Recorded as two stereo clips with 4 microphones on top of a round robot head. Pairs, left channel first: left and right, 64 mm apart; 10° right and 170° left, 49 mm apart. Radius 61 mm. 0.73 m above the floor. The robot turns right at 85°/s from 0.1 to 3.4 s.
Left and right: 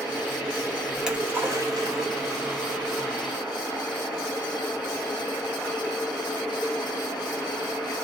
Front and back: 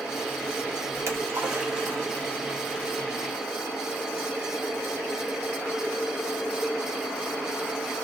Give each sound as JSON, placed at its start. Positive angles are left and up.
{"t": 0.9, "sound": "a splash", "azimuth_deg": 180, "distance_m": 1.5}